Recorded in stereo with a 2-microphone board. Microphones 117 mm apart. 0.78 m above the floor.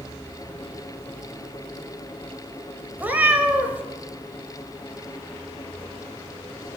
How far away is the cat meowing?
About 1.2 m.